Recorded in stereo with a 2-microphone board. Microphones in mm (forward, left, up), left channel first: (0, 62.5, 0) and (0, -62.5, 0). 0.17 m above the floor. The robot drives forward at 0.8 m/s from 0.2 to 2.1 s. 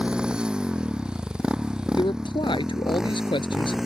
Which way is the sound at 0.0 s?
10° right (ahead or behind).